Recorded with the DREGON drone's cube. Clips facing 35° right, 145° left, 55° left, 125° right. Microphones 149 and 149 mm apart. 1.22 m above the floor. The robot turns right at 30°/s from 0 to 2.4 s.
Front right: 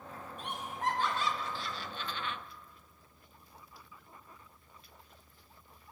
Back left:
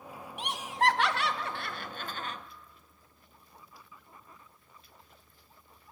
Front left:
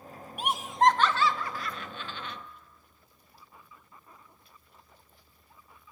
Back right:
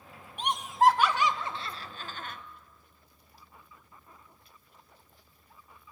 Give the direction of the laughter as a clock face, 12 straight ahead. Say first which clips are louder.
Back left 7 dB, even; 7 o'clock.